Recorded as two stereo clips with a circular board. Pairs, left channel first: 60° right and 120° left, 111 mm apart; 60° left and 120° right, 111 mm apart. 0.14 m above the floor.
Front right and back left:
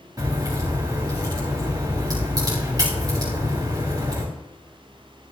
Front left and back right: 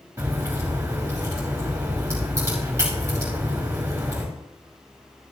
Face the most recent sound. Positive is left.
turn(degrees=175)